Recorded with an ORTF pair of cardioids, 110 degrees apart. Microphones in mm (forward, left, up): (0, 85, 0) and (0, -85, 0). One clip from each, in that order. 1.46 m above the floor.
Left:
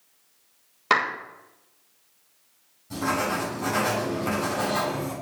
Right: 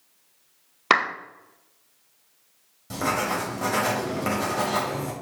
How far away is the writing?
About 5.5 m.